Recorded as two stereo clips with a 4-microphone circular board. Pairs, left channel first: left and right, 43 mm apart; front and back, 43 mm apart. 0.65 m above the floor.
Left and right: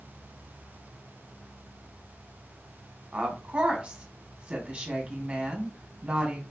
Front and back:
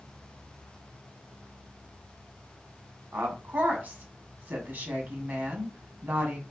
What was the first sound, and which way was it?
A woman speaking, 150° right.